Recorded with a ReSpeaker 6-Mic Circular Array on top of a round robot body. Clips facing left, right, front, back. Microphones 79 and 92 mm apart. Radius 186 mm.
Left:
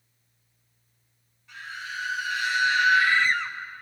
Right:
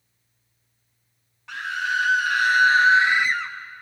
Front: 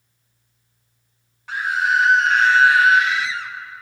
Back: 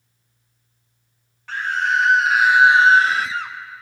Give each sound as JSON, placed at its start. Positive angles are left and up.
{"t": 1.5, "sound": "a scream", "azimuth_deg": -75, "distance_m": 1.3}